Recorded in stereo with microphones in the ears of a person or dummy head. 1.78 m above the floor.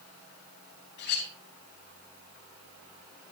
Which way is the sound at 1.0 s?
65° left (ahead or behind).